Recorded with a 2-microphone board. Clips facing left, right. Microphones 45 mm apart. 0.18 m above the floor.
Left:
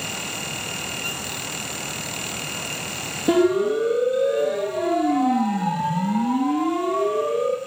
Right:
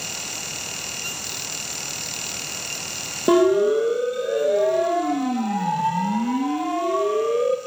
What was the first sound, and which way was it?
A siren, 35° right (ahead or behind).